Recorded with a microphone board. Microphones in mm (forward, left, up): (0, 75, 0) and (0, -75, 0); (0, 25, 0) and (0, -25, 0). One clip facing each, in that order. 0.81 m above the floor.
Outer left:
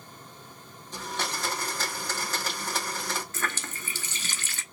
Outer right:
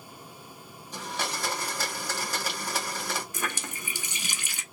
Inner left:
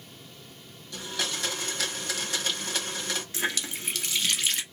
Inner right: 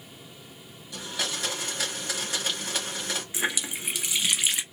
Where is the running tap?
15° right (ahead or behind), 0.7 m.